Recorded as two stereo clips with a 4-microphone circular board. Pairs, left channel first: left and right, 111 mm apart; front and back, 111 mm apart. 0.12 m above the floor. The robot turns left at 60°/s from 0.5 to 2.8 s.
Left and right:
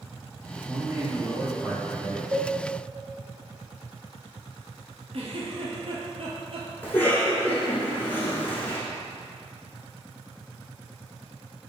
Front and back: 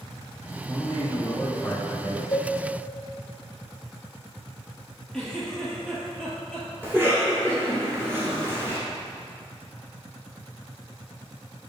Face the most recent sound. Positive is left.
turn(degrees=140)